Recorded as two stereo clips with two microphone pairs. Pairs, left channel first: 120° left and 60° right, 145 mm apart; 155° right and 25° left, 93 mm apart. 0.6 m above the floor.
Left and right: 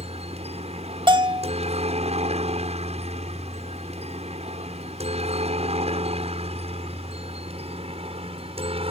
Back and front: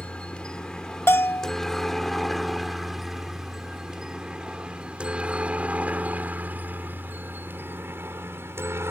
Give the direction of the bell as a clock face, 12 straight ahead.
3 o'clock.